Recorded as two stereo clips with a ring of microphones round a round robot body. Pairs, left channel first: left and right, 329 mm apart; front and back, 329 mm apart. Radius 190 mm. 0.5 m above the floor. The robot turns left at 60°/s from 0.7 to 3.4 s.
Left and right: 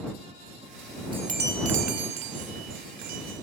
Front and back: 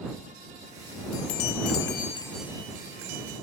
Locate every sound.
1.1 s a chime: 15° right; by 3.4 s 150° right